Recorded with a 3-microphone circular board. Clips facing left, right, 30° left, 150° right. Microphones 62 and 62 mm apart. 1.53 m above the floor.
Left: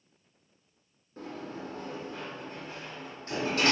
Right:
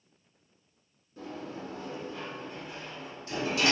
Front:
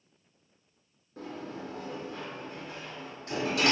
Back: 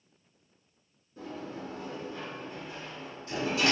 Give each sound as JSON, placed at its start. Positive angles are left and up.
{"t": 1.2, "sound": "a sliding door", "azimuth_deg": 45, "distance_m": 0.6}